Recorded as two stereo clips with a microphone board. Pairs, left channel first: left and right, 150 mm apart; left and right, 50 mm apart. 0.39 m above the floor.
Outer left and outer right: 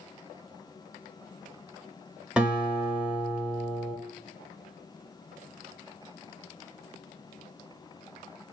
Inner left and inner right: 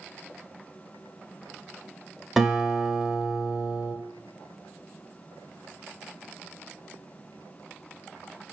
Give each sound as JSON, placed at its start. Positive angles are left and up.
{"t": 2.4, "sound": "a guitar", "side_deg": -5, "distance_m": 0.9}